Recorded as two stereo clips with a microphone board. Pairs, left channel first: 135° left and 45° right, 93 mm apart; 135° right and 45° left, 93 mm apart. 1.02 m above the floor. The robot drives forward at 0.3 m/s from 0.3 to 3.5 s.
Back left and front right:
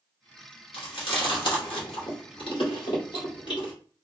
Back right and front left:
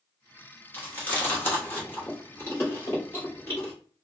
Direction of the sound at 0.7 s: 155° left.